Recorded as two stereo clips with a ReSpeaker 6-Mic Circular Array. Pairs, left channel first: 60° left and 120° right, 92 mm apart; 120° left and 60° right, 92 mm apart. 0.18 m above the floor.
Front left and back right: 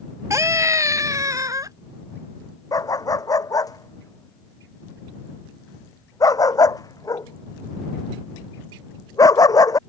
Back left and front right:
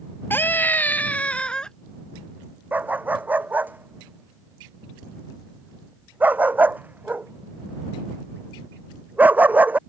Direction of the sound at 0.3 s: 175° right.